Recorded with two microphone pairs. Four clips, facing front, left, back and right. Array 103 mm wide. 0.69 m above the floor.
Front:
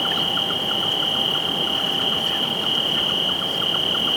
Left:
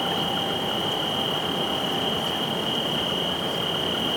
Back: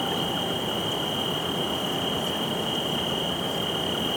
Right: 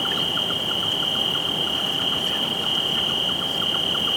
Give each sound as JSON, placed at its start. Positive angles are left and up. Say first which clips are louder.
{"t": 0.0, "sound": "an insect", "louder": "left 2 dB, front 1 dB", "azimuth_deg": -35}